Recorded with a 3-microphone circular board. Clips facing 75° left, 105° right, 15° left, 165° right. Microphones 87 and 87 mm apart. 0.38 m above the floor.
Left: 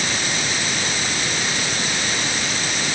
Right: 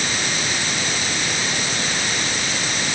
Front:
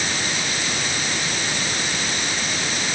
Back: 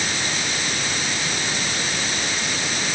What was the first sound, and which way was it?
Only background noise.